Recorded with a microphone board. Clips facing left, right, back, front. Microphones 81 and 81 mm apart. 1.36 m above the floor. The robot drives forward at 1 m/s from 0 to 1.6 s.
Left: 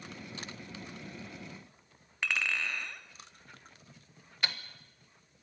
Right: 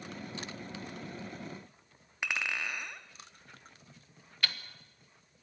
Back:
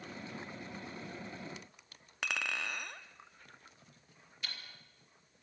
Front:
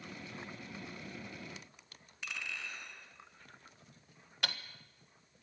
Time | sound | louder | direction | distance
2.2 | a clink | left 1 dB, back 6 dB | 165° right | 1.4 m
4.4 | ticking | left 1 dB, front 8 dB | 20° left | 1.4 m